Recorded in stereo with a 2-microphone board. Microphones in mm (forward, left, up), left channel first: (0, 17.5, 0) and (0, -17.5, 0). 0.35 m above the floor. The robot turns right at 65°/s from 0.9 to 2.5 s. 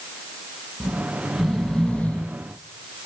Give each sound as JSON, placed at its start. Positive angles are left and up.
{"t": 0.8, "sound": "snoring", "azimuth_deg": -30, "distance_m": 1.6}